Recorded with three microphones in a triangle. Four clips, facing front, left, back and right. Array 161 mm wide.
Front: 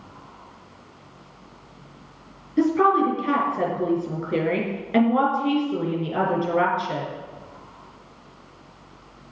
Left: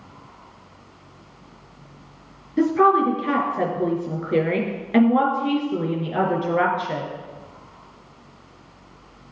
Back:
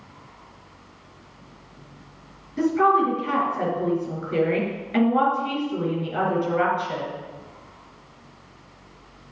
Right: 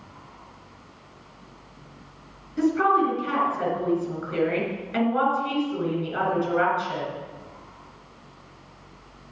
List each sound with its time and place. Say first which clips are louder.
2.6 s a woman speaking: left 4 dB, front 1 dB; 55° left, 4 m